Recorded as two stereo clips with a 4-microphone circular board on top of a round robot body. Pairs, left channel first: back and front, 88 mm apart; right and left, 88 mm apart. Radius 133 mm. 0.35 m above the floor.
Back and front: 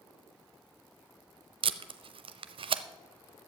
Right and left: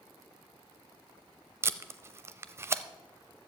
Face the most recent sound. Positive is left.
turn(degrees=25)